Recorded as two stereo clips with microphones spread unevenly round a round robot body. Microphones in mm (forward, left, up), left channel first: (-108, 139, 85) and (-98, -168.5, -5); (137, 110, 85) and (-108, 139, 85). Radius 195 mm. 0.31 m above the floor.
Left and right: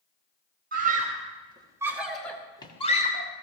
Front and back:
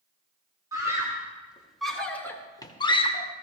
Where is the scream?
115° right, 1.7 m; by 3.3 s 25° left, 1.3 m.